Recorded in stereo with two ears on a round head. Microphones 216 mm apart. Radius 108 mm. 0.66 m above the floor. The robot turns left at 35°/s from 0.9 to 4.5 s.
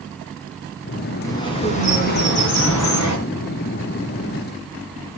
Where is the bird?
165° left, 5.5 m; by 3.2 s 100° left, 5.5 m.